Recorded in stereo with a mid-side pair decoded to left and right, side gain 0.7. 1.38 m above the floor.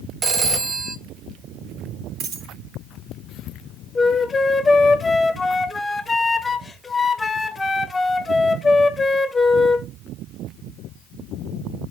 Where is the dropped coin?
65° right, 3.5 m.